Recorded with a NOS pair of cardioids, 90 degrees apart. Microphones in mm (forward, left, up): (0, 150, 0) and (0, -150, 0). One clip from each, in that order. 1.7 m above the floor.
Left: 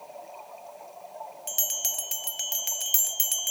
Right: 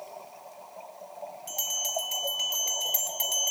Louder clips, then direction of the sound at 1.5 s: Even; 45° left.